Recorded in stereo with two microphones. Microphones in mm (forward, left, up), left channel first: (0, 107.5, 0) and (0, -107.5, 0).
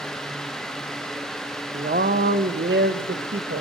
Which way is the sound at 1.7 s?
40° right (ahead or behind).